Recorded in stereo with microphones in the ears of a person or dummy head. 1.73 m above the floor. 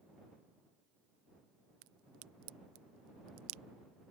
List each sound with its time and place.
1.8 s a crack: 70° right (ahead or behind)